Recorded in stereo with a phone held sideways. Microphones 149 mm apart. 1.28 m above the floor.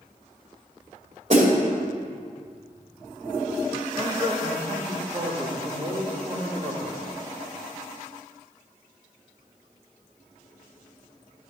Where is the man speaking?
35° right (ahead or behind), 3 m.